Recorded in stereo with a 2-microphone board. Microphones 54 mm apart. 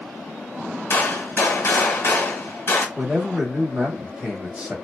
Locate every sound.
0.9 s a gunshot: 45° left (ahead or behind), 0.8 m
3.0 s a man speaking: 20° right (ahead or behind), 1.2 m